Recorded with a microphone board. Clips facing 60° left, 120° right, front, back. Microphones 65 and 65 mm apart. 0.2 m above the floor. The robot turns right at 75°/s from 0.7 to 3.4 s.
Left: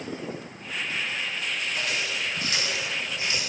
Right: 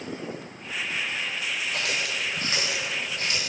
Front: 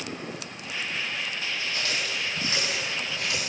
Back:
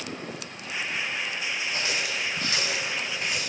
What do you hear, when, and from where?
1.7 s a running tap: 125° right, 5.5 m; by 3.5 s 5° left, 5.5 m